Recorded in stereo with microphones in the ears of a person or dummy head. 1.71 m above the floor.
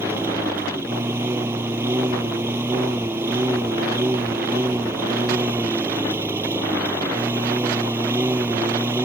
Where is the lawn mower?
15° right (ahead or behind).